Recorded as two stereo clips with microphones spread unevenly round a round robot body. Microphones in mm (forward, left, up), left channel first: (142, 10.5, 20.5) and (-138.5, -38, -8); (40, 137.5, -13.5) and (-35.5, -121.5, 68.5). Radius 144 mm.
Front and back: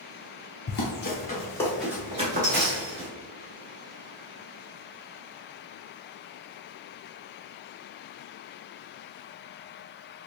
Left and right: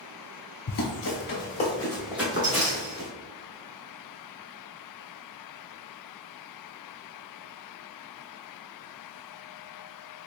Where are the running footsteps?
30° left, 1.1 m; by 3.1 s 130° right, 1.1 m.